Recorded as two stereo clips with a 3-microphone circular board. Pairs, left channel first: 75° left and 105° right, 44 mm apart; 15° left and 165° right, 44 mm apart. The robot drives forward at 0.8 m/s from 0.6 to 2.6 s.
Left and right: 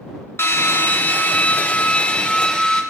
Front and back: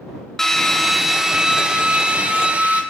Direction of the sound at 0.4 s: 100° left.